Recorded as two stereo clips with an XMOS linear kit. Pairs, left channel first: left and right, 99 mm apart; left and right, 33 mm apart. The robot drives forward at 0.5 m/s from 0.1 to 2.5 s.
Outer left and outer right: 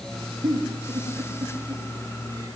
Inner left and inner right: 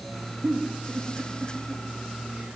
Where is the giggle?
55° right (ahead or behind), 4 m; by 2.6 s 45° right (ahead or behind), 4.5 m.